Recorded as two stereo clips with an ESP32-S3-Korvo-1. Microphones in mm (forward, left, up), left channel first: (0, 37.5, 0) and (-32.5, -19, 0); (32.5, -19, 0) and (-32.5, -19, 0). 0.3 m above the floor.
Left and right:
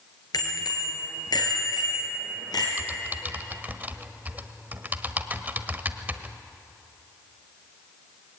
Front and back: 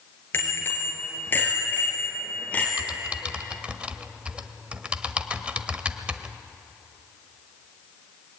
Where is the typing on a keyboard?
135° right, 1.0 m.